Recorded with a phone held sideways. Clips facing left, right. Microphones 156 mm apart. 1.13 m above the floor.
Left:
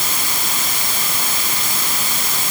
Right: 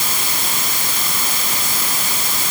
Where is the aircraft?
No aircraft in this recording.